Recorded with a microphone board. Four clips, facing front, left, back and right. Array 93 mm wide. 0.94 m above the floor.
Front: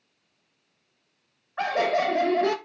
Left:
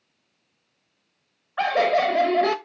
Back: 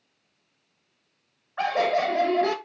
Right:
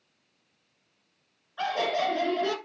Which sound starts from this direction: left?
Laughter, at 1.6 s.